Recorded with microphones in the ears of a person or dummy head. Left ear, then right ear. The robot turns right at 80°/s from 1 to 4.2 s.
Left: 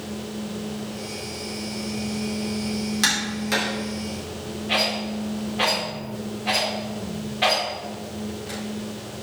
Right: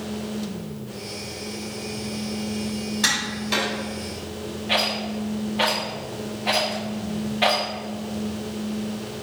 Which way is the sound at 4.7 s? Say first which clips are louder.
Even; 10° right (ahead or behind).